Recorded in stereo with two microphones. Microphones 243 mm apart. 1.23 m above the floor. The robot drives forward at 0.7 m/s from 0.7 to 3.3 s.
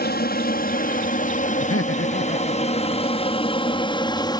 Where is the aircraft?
40° left (ahead or behind); by 4.4 s 15° left (ahead or behind).